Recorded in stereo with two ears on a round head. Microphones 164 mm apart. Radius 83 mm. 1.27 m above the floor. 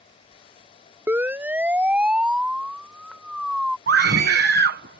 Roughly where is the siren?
Centre.